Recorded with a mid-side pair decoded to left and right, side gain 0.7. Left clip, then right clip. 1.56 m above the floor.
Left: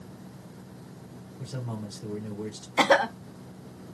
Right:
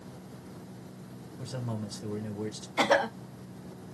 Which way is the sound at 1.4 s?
10° right.